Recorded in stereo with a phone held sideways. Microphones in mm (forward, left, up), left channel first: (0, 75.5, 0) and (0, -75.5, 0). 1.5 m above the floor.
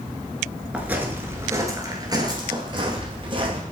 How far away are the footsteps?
About 1.5 m.